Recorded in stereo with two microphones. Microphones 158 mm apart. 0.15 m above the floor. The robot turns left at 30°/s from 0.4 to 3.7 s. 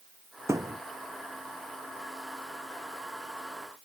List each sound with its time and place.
0.5 s a thud: 15° right (ahead or behind); by 0.8 s 25° right (ahead or behind)